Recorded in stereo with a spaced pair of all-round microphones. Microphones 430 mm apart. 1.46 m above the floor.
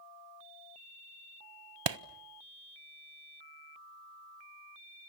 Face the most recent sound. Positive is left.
turn(degrees=-80)